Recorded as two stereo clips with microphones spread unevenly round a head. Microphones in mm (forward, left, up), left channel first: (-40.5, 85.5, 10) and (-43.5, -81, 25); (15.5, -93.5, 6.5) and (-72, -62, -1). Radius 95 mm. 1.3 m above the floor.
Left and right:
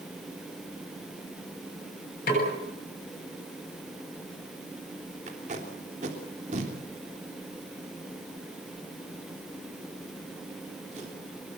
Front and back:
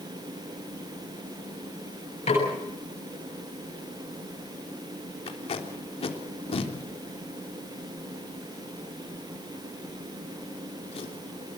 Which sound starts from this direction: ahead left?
A snare drum, at 2.3 s.